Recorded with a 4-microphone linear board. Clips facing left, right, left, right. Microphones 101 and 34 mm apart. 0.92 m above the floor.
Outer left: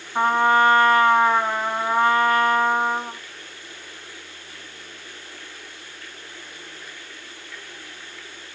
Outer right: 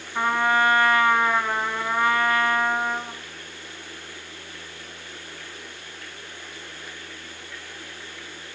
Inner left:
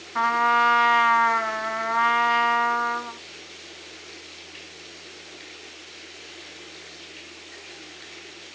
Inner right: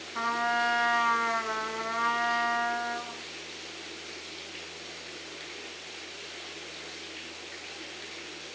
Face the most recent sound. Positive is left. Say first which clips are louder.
# outer left 4 dB, inner left 8 dB
turn(degrees=35)  # may be behind; listen again after turning